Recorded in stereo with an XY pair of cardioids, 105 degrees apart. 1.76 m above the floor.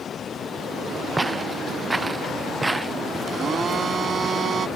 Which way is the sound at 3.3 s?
45° right.